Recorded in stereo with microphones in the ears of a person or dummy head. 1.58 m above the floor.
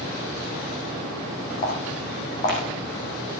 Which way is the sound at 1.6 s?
45° left (ahead or behind).